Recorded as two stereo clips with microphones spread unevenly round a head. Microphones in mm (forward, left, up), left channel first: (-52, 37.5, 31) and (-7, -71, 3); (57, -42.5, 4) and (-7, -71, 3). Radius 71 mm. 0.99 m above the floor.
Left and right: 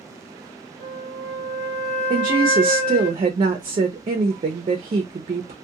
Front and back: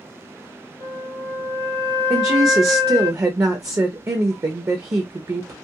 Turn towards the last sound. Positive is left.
turn(degrees=-105)